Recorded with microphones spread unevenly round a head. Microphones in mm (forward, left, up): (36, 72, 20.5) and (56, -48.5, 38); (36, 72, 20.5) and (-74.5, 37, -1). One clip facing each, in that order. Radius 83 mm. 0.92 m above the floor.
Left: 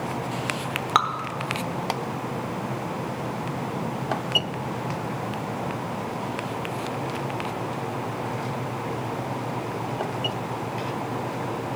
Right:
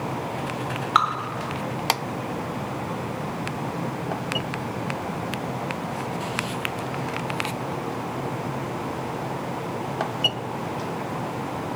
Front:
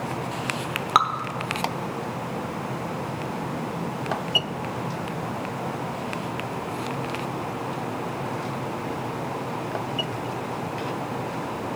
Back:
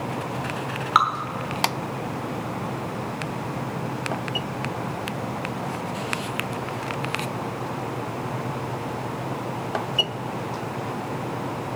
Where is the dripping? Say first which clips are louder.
Right 1 dB, back 1 dB; 55° left, 1.0 m.